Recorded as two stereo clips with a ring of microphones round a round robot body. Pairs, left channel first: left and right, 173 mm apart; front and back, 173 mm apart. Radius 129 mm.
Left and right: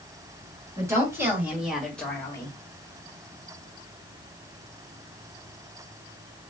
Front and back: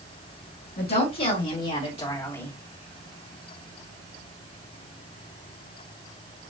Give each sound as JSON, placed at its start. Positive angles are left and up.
{"t": 0.8, "sound": "a woman speaking", "azimuth_deg": -20, "distance_m": 2.5}